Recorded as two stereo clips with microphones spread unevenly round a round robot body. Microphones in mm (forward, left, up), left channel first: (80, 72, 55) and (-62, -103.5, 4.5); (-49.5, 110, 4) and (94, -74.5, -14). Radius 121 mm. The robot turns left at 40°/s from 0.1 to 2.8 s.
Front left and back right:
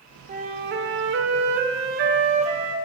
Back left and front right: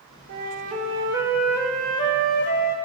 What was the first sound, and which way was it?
A flute, 90° right.